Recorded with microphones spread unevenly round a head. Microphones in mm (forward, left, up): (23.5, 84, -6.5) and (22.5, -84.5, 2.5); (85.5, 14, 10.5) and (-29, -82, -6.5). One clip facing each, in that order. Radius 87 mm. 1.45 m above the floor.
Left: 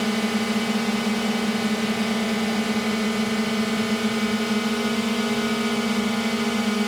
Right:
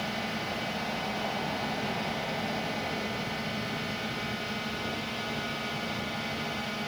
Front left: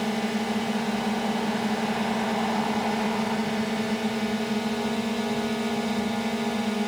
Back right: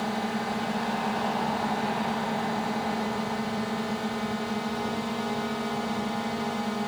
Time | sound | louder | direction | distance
0.0 | a drone | left 12 dB, front left 3 dB | 115° left | ?